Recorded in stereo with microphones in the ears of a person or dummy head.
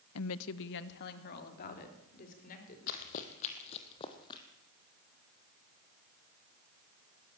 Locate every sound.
0.1 s a woman speaking: 80° left, 0.9 m; by 2.8 s 45° left (ahead or behind), 4.5 m
2.9 s running footsteps: 50° left (ahead or behind), 2.5 m; by 4.4 s 25° left (ahead or behind), 2.5 m